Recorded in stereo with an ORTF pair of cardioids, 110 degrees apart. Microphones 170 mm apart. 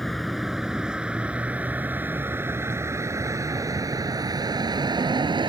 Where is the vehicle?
Straight ahead; by 5.5 s 25° right.